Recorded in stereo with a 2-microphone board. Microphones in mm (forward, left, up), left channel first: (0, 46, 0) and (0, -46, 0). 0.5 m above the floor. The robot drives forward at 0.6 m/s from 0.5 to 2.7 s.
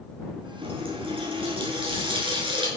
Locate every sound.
0.6 s a running tap: 80° right, 5 m; by 2.7 s 65° right (ahead or behind), 5.5 m